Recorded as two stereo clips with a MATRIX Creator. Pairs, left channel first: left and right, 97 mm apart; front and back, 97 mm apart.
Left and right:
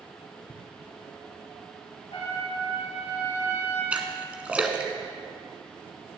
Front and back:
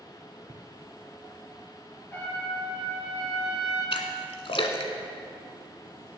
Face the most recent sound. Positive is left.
turn(degrees=-15)